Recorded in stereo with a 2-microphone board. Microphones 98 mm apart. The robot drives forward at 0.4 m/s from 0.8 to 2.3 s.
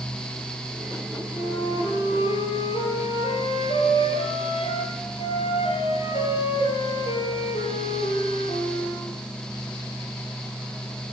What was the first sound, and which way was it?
A flute, 70° left (ahead or behind).